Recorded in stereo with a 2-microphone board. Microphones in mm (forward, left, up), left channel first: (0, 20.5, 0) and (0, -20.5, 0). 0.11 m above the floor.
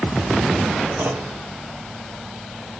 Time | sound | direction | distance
1.0 | a clunk | 55° right (ahead or behind) | 2.5 m